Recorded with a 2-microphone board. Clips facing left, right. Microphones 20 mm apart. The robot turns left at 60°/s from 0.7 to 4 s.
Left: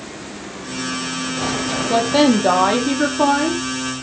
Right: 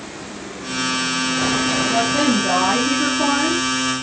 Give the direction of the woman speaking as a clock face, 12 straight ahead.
8 o'clock.